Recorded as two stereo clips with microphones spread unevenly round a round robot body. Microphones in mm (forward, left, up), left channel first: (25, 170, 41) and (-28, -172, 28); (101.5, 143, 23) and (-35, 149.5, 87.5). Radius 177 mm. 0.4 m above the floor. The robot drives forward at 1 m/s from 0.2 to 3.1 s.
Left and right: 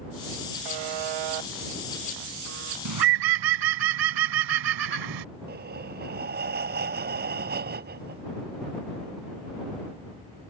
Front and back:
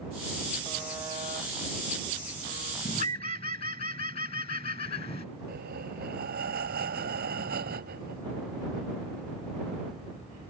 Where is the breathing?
160° right.